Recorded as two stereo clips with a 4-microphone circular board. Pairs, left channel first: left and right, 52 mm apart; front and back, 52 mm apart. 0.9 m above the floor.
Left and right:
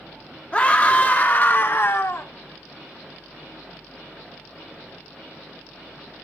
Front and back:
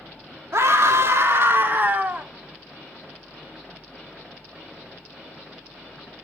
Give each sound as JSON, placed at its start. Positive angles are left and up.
{"t": 0.5, "sound": "a scream", "azimuth_deg": 155, "distance_m": 1.6}